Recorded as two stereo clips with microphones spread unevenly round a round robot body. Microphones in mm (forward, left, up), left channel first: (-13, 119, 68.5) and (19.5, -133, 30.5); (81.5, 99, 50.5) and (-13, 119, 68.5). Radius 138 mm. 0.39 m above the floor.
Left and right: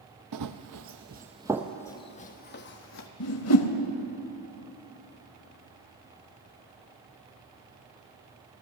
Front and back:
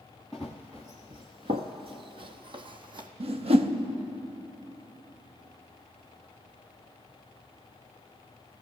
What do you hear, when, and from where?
0.3 s running footsteps: 105° right, 0.8 m; by 3.1 s 135° left, 1.1 m
3.2 s a whoosh: 135° left, 0.8 m